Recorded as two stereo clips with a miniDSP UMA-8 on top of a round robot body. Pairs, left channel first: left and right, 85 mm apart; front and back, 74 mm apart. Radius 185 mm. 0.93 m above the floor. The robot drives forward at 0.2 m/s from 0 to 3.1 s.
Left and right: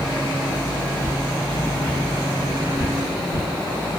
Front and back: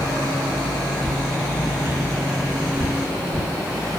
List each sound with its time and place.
1.0 s footsteps: 100° right, 1.1 m; by 3.5 s 135° left, 1.3 m